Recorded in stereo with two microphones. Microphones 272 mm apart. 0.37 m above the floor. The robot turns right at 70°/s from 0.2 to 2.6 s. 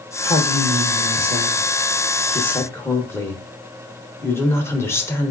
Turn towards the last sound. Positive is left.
turn(degrees=10)  # may be behind; listen again after turning